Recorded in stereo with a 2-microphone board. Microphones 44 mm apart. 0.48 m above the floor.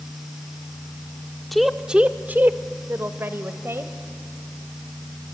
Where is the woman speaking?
5° left (ahead or behind), 0.7 m; by 3.9 s 70° right (ahead or behind), 2.0 m.